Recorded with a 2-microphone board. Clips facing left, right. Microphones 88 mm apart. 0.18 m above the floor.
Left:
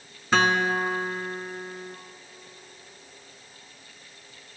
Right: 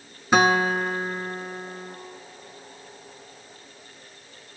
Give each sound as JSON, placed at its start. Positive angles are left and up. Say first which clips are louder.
{"t": 0.3, "sound": "a guitar", "louder": "right 3 dB", "side_deg": -15, "distance_m": 0.7}